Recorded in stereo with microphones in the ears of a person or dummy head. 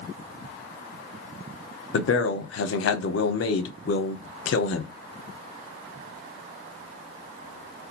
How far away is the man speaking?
About 0.7 m.